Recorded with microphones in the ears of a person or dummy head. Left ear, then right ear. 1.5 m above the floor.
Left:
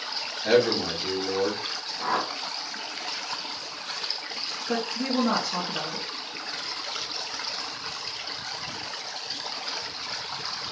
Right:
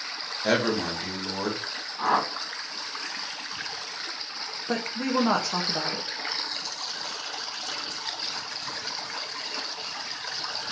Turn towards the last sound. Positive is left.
turn(degrees=-25)  # may be behind; listen again after turning